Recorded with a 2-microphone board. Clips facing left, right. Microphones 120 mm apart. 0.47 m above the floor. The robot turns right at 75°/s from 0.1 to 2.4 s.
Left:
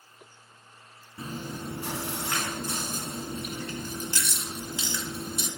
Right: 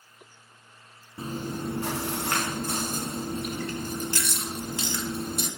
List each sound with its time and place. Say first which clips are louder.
1.2 s chewing: right 4 dB; 150° right, 0.8 m; by 5.5 s 60° right, 0.8 m